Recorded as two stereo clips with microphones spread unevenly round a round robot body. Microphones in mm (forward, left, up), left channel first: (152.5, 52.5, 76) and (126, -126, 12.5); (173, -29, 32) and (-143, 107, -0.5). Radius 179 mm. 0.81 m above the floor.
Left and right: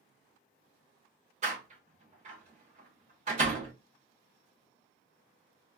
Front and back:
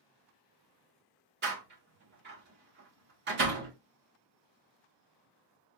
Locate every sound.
1.4 s a door slam: 145° right, 0.9 m